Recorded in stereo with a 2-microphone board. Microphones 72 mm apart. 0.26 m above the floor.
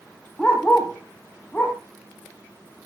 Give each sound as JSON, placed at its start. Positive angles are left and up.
{"t": 0.4, "sound": "a dog barking", "side_deg": 15, "distance_m": 3.0}